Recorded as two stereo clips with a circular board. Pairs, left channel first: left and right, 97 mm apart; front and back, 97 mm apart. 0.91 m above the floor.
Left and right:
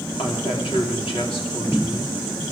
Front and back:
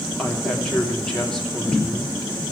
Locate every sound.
0.2 s a woman speaking: 80° left, 3 m